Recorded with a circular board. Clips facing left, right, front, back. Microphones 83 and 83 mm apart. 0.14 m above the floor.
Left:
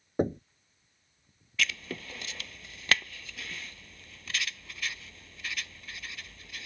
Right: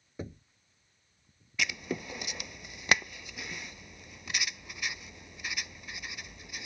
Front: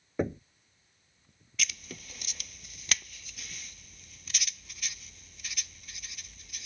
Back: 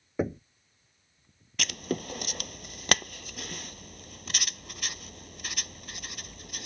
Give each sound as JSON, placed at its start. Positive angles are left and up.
{"t": 0.2, "sound": "knocking", "azimuth_deg": 95}
{"t": 1.6, "sound": "writing", "azimuth_deg": -160}